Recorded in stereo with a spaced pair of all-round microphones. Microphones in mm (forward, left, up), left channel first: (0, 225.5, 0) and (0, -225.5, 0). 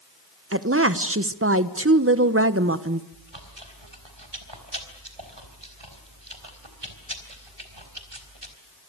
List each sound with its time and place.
0.5 s a woman speaking: 30° right (ahead or behind), 1.1 m
3.1 s chewing: 70° right (ahead or behind), 3.5 m